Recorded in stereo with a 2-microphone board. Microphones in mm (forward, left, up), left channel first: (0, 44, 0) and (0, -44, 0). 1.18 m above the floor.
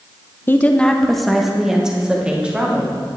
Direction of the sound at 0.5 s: 25° left (ahead or behind).